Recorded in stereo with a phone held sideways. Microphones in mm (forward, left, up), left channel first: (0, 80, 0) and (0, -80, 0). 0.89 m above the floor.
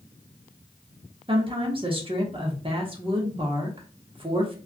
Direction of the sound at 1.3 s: 35° right (ahead or behind).